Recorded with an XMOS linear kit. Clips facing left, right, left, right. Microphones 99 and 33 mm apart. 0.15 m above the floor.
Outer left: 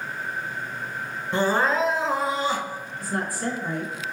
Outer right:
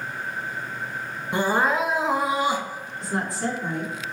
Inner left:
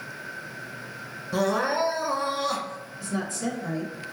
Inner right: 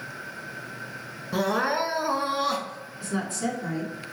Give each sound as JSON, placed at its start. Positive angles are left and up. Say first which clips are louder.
{"t": 1.3, "sound": "crying", "louder": "even, even", "side_deg": -15, "distance_m": 0.7}
{"t": 3.0, "sound": "a woman speaking", "louder": "outer right 1 dB, inner right 1 dB", "side_deg": -25, "distance_m": 1.9}